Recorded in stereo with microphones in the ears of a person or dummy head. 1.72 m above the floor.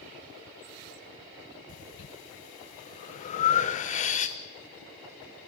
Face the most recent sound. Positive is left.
turn(degrees=40)  # may be behind; listen again after turning